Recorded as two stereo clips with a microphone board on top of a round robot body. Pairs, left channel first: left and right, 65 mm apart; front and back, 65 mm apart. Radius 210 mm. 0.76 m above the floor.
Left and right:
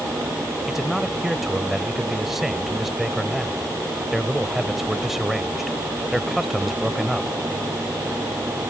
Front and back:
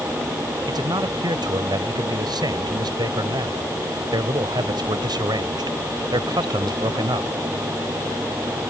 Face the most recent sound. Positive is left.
turn(degrees=-175)